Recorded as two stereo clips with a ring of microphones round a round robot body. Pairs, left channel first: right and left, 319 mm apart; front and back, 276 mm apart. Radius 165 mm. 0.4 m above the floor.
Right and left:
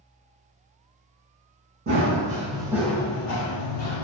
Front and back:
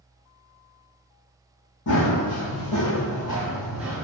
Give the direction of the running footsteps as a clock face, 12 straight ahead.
11 o'clock.